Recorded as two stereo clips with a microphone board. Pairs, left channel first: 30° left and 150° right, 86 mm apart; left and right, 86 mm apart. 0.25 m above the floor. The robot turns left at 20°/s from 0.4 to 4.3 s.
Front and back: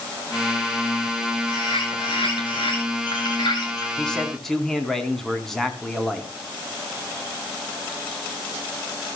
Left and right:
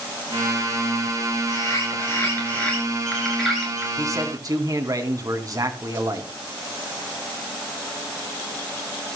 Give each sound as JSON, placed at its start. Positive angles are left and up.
{"t": 1.5, "sound": "a bird", "azimuth_deg": 40, "distance_m": 6.5}
{"t": 4.0, "sound": "a man speaking", "azimuth_deg": -50, "distance_m": 2.5}